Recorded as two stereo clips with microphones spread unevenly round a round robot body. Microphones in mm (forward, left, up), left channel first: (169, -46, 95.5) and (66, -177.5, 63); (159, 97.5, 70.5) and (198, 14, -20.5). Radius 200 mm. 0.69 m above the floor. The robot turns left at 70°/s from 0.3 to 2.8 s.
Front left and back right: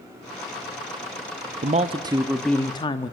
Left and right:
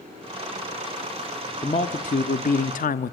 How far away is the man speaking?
About 0.8 m.